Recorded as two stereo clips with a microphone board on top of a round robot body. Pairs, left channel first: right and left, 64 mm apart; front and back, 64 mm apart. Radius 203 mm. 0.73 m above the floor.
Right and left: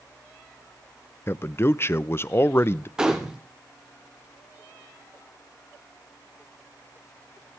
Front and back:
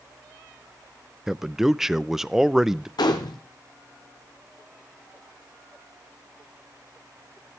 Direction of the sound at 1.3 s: 100° right.